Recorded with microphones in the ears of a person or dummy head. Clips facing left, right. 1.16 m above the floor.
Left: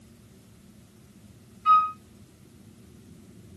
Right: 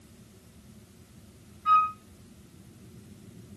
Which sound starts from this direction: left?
A flute, at 1.6 s.